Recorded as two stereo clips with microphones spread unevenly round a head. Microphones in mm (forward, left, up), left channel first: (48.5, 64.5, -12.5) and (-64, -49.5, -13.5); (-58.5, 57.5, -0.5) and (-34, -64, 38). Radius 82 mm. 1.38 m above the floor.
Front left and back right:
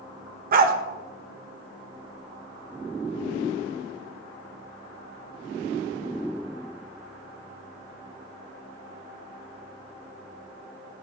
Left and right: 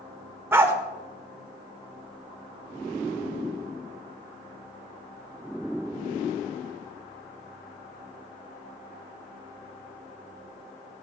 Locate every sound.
0.5 s a dog barking: 135° right, 1.5 m